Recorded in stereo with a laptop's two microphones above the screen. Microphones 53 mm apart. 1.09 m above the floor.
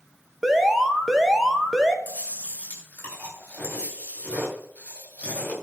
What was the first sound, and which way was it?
An alarm, centre (ahead or behind).